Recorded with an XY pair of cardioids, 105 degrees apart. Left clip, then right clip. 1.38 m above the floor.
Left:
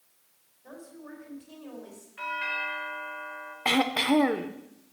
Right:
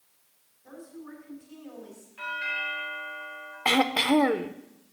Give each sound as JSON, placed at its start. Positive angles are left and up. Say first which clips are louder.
{"t": 0.6, "sound": "a woman speaking", "louder": "right 1 dB", "azimuth_deg": 45, "distance_m": 5.0}
{"t": 2.2, "sound": "a doorbell", "louder": "even", "azimuth_deg": 35, "distance_m": 3.0}
{"t": 3.6, "sound": "throat clearing", "louder": "right 2 dB", "azimuth_deg": -10, "distance_m": 0.6}